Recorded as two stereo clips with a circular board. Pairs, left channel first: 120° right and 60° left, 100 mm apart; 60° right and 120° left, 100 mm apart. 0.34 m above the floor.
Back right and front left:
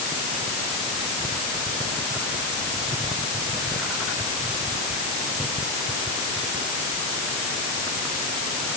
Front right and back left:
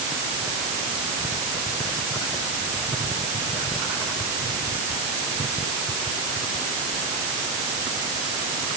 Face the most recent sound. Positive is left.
No sound to turn to.